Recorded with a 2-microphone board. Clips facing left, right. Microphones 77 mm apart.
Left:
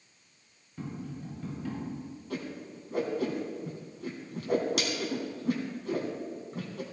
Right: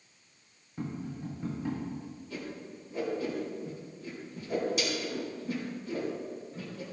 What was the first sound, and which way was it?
Tapping, 20° right (ahead or behind).